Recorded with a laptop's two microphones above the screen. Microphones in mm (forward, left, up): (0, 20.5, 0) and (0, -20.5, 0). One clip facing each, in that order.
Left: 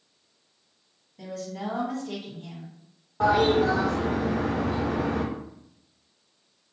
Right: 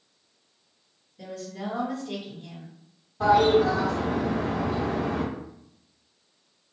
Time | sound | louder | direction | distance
1.2 | a woman speaking | left 1 dB | 75° left (ahead or behind) | 1.8 m
3.2 | a toilet flushing | right 2 dB | 65° left (ahead or behind) | 1.4 m